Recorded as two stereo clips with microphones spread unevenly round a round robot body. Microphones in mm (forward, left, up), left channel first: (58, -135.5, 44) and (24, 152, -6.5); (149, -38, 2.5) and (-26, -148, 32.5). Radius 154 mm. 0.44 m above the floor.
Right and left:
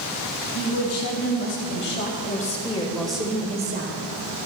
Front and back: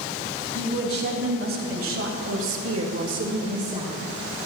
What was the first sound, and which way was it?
A woman speaking, 130° right.